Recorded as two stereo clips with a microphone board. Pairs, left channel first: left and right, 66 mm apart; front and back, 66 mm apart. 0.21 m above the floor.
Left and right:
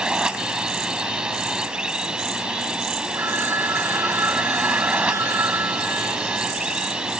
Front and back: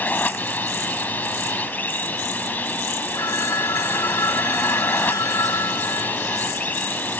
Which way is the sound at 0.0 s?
25° right.